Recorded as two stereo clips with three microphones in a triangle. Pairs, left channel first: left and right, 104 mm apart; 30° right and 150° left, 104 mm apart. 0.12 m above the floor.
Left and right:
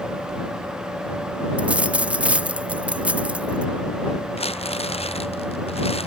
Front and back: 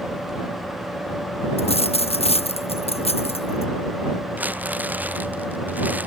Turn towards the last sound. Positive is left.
turn(degrees=75)